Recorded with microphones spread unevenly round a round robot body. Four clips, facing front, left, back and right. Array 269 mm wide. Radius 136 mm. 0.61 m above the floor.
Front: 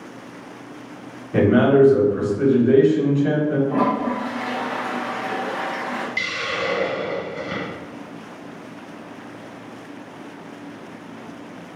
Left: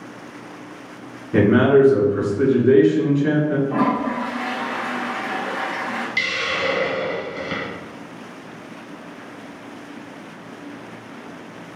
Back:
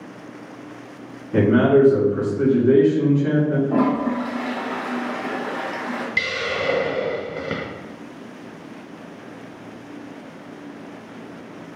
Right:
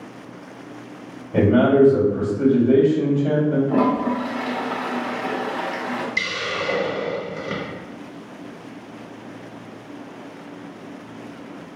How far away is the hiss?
About 0.7 m.